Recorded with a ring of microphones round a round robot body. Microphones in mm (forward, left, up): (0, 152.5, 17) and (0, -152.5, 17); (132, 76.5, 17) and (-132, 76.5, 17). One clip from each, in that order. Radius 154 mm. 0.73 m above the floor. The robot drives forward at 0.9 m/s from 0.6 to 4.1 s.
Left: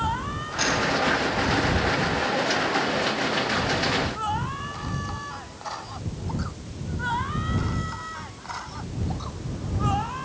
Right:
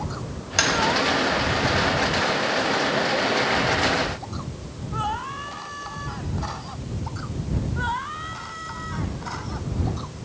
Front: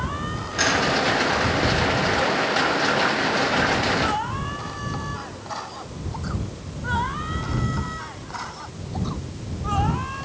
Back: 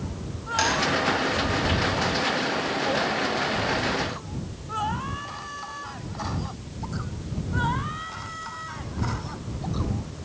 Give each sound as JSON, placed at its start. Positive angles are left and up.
{"t": 0.6, "sound": "tapping", "azimuth_deg": -105, "distance_m": 4.0}